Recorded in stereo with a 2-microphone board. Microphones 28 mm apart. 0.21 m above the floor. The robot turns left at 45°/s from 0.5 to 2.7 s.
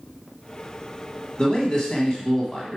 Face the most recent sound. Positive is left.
turn(degrees=35)